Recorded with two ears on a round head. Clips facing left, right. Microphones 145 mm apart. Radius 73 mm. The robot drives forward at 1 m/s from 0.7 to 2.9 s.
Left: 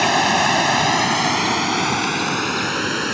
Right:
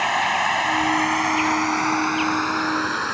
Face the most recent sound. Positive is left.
turn(degrees=30)  # may be behind; listen again after turning